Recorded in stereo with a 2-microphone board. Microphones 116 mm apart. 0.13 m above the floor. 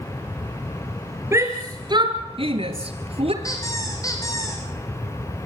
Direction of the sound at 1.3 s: 25° right (ahead or behind).